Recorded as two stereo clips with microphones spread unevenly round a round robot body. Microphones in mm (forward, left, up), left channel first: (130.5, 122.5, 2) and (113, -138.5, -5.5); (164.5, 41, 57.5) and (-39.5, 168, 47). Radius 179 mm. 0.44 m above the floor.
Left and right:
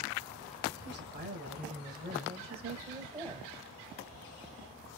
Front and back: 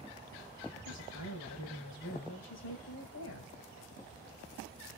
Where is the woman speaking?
45° right, 2.5 m; by 3.5 s 15° right, 1.7 m.